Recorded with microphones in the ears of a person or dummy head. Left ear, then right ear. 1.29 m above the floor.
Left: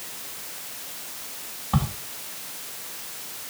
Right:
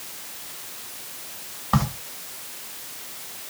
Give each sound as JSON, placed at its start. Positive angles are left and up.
{"t": 1.7, "sound": "a crack", "side_deg": -60, "distance_m": 1.4}